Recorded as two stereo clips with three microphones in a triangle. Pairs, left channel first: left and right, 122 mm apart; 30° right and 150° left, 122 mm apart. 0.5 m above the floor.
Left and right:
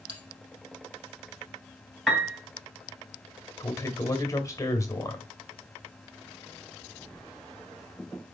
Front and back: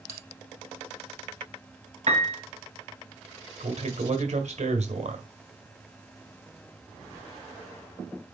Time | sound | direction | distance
0.1 | a bell | 145° right | 4 m
2.1 | a piano | straight behind | 2 m
3.6 | a man speaking | 150° left | 2 m